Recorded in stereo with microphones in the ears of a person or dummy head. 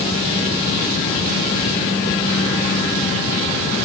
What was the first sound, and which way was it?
Only background noise.